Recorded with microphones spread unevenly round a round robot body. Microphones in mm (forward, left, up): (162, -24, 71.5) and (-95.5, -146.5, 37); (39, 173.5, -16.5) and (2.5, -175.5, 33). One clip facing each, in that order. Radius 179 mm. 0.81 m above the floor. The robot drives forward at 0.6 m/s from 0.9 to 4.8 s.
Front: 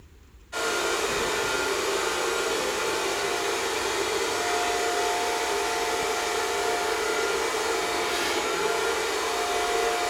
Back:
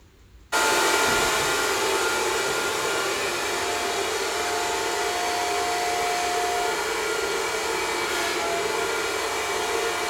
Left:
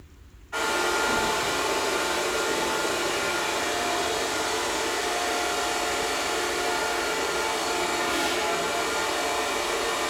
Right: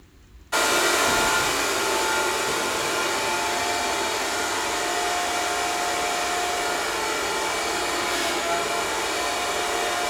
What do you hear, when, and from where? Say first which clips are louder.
0.5 s a hair dryer: back 4 dB, right 3 dB; 125° right, 0.8 m; by 10.1 s 165° right, 3 m